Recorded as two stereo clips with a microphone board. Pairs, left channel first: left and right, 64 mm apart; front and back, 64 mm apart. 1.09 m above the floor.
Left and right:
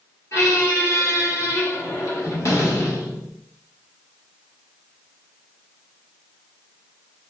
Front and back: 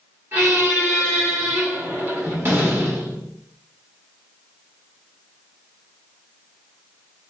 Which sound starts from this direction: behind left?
A squeak, at 0.3 s.